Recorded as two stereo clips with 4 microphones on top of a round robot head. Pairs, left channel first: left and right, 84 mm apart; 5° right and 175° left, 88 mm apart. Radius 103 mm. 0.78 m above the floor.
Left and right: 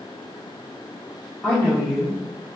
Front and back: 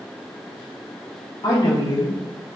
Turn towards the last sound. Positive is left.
turn(degrees=-25)